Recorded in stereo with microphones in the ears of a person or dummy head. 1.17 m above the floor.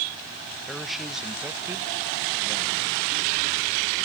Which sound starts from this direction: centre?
A man speaking, at 0.7 s.